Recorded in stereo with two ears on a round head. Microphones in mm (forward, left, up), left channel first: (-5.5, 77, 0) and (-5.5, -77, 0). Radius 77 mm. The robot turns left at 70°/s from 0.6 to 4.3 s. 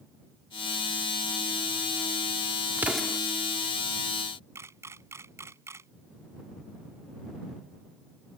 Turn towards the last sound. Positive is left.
turn(degrees=-15)  # may be behind; listen again after turning